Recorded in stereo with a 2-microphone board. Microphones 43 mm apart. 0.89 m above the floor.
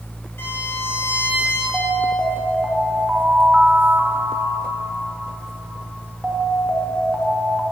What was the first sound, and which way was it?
A violin, 60° left (ahead or behind).